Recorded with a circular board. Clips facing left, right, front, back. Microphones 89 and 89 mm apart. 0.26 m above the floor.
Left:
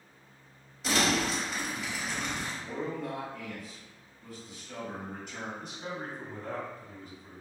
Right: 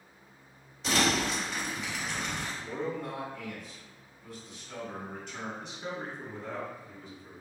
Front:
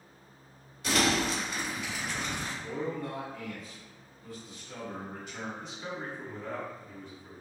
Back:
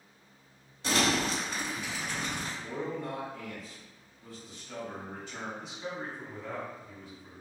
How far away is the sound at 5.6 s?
About 1.5 m.